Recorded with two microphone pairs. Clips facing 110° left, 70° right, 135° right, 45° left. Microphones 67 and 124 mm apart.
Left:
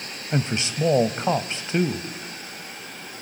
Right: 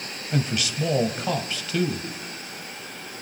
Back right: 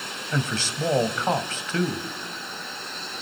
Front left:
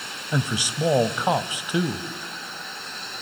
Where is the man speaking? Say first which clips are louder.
Left 1 dB, front left 2 dB; 105° left, 1.2 m.